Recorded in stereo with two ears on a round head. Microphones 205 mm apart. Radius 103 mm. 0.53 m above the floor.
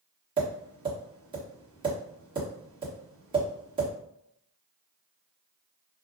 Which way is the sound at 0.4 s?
20° right (ahead or behind).